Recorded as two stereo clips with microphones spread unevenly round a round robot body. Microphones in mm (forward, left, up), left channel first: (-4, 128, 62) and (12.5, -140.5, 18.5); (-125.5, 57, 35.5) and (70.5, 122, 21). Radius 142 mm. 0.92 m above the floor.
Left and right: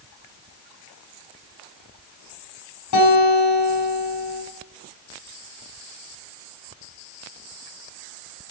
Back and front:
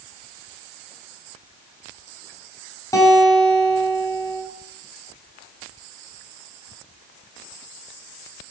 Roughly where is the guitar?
Behind left.